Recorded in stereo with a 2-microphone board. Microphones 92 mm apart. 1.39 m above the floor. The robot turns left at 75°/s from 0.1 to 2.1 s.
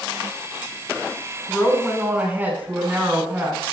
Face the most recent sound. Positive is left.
turn(degrees=-20)